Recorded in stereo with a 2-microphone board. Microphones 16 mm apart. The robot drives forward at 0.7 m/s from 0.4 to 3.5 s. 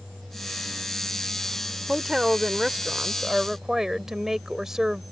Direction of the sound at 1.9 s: 45° right (ahead or behind).